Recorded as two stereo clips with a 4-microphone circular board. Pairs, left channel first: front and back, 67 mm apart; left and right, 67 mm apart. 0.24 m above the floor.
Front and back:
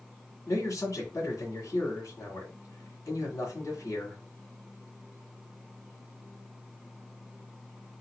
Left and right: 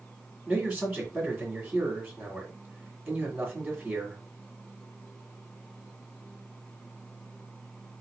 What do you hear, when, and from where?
0.5 s a man speaking: 15° right, 2 m